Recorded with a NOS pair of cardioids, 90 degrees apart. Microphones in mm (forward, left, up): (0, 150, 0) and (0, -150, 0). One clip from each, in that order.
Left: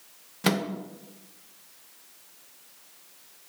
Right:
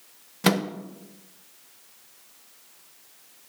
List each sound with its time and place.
0.4 s a microwave: 15° right, 0.5 m